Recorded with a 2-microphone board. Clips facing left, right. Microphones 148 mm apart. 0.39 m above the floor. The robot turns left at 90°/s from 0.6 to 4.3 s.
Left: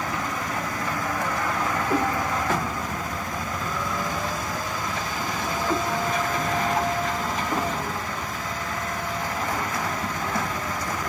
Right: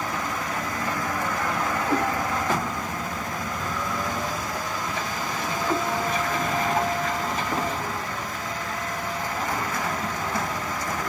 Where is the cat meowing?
75° right (ahead or behind), 4 m; by 2.0 s 60° right (ahead or behind), 4 m.